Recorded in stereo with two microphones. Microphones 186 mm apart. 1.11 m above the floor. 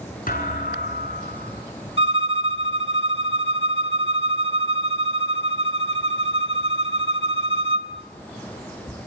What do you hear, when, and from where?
0.3 s a thud: 50° left (ahead or behind), 6.5 m
2.0 s a violin: 75° left (ahead or behind), 1.4 m